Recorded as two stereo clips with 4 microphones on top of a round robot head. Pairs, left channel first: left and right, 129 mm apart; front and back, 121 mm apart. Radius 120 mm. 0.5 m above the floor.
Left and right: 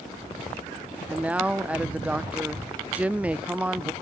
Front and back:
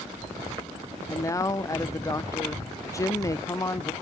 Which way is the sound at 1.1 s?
20° right.